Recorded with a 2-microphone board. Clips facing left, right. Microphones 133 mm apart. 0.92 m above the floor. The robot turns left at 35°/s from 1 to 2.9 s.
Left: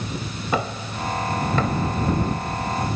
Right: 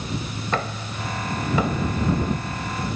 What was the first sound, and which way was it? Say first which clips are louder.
Knocking: left 3 dB; 10° left (ahead or behind).